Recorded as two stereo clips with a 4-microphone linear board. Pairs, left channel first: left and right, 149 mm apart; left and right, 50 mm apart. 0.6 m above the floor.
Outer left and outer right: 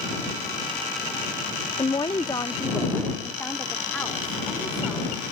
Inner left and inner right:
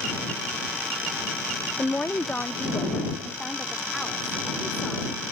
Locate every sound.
1.8 s a woman speaking: 35° left (ahead or behind); by 5.3 s 5° left (ahead or behind)